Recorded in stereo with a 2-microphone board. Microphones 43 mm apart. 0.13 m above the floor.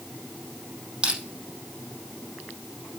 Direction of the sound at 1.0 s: 20° right (ahead or behind).